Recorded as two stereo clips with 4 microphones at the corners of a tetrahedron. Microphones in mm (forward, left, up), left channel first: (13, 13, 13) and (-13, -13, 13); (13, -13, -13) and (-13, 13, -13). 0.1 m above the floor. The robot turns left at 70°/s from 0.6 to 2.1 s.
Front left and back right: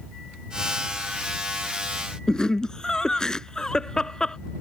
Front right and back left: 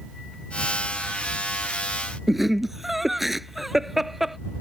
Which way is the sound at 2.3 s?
60° left.